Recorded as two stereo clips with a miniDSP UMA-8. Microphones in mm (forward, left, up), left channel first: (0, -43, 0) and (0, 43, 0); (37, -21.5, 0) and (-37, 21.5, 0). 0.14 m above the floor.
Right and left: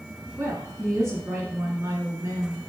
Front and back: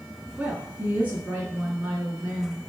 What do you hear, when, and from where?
0.4 s a woman speaking: 90° left, 1.8 m